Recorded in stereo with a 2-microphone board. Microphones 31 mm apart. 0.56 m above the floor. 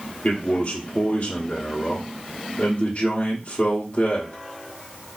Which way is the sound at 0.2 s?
40° left (ahead or behind).